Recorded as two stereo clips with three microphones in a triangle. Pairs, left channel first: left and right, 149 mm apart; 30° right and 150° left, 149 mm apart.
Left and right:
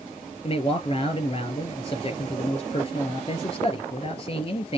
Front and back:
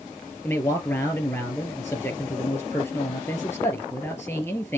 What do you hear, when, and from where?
0.4 s a man speaking: 40° left, 2.5 m